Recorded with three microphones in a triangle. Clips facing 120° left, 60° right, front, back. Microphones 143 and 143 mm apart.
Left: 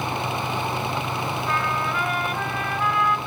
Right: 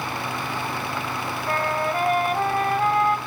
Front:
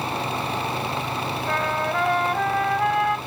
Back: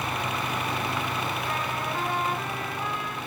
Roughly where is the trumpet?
Ahead.